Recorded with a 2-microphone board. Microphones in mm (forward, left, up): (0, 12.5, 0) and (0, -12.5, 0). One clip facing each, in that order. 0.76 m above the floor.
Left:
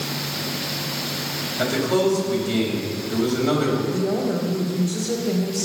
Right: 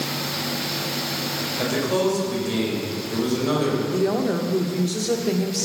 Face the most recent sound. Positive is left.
turn(degrees=-60)  # may be behind; listen again after turning